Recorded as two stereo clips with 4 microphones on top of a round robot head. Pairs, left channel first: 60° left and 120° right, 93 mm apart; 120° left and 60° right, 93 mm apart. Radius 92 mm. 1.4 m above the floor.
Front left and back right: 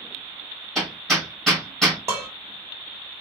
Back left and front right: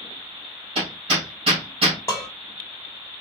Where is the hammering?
30° right, 2.5 m.